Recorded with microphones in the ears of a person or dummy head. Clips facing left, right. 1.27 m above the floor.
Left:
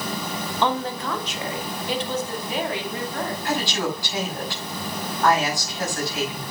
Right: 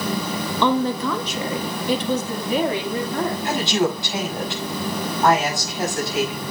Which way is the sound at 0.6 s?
80° right.